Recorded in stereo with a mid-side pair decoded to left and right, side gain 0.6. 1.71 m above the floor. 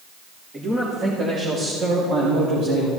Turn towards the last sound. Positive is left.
turn(degrees=-75)